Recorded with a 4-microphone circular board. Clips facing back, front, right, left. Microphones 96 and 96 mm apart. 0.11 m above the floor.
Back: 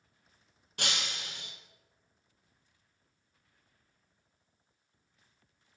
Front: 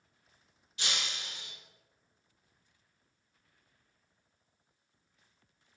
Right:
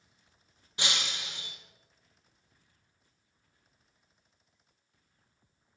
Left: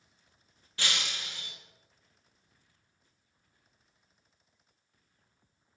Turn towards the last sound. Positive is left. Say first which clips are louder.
# back 2 dB, even
turn(degrees=-160)